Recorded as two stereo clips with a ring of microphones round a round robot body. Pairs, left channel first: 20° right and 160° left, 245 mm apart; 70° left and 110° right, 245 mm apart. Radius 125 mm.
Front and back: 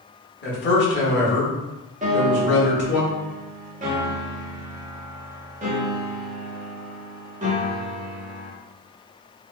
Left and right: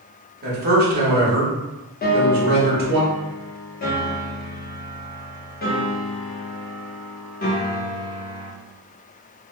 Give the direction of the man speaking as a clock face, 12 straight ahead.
2 o'clock.